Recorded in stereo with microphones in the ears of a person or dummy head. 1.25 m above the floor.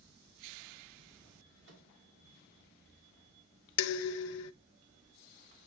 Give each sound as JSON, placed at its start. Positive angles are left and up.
{"t": 1.6, "sound": "a microwave", "side_deg": -70, "distance_m": 2.0}
{"t": 3.8, "sound": "dishes clattering", "side_deg": 70, "distance_m": 0.5}